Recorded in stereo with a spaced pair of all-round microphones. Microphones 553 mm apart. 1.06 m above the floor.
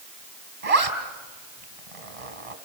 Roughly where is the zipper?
Right.